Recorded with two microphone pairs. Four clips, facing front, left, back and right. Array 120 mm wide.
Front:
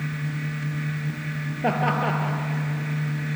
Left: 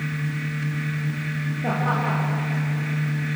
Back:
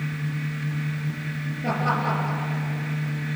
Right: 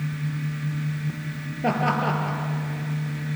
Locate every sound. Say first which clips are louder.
1.6 s laughter: right 2 dB, front 2 dB; 25° right, 3.5 m